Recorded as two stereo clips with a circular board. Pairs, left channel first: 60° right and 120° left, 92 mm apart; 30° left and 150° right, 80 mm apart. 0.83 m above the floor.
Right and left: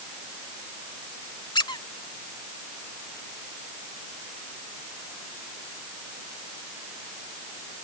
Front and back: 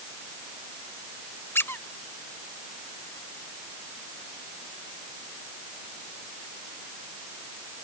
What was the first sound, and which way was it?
A squeak, 30° right.